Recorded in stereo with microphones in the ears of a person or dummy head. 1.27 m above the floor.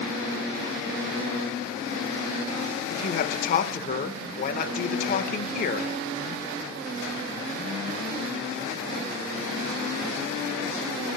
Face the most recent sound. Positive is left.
turn(degrees=50)  # may be behind; listen again after turning